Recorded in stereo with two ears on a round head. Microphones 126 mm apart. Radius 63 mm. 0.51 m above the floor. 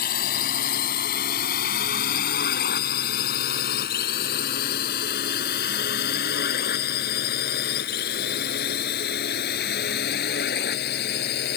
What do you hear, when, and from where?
0.0 s a drone: 70° left (ahead or behind); by 11.6 s 80° left